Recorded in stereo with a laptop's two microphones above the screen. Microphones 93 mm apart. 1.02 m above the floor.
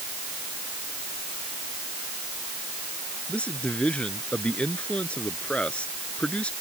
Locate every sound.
3.3 s a man speaking: 15° left (ahead or behind)